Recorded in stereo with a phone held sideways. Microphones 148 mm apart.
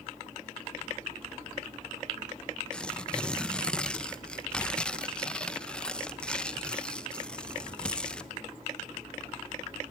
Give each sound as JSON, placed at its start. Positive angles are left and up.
{"t": 2.7, "sound": "tearing paper", "side_deg": 5, "distance_m": 1.0}